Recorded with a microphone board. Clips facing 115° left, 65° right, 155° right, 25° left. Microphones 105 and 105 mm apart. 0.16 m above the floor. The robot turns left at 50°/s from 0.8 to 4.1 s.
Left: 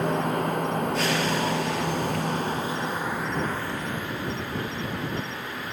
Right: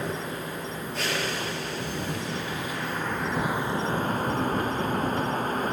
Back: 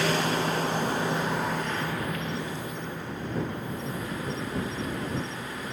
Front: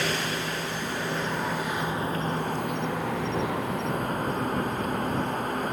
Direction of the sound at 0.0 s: 145° left.